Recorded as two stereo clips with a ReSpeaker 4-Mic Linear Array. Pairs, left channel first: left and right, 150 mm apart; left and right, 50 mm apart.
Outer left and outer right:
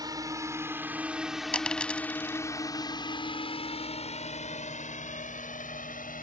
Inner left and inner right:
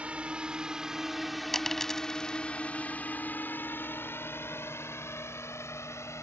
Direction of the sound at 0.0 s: 25° right (ahead or behind).